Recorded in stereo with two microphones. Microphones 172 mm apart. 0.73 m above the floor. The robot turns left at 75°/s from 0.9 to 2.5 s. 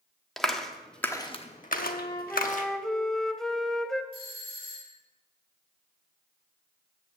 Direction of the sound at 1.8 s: 60° left.